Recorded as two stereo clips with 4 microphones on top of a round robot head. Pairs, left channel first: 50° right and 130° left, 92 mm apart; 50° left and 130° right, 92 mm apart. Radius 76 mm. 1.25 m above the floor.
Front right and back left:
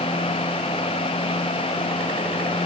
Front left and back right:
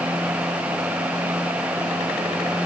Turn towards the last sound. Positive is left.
No sound to turn to.